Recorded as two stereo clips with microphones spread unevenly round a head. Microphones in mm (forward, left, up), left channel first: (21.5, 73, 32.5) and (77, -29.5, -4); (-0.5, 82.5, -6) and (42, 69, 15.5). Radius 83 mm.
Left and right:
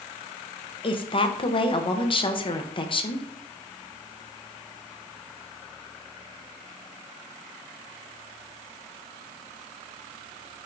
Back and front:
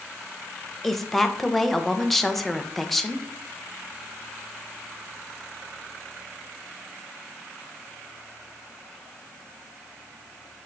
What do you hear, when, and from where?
0.8 s a woman speaking: 75° left, 1.0 m